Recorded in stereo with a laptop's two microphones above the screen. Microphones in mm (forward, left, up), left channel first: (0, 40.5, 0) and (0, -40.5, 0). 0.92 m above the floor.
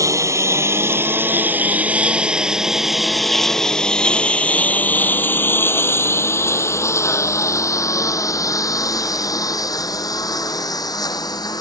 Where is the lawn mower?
40° right (ahead or behind); by 11.6 s 55° left (ahead or behind).